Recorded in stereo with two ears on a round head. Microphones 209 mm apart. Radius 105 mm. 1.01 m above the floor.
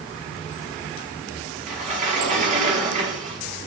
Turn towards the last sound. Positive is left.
turn(degrees=-35)  # may be behind; listen again after turning